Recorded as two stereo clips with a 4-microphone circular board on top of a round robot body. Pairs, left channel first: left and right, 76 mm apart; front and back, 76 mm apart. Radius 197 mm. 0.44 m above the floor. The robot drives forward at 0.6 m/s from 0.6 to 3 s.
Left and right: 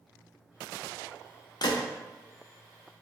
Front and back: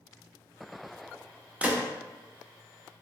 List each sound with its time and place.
1.6 s a gunshot: 110° left, 0.6 m; by 1.9 s 125° left, 0.7 m